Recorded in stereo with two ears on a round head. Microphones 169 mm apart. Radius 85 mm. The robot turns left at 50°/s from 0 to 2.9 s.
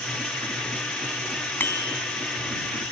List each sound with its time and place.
1.6 s a bicycle bell: 10° left (ahead or behind); by 2.0 s 30° left (ahead or behind)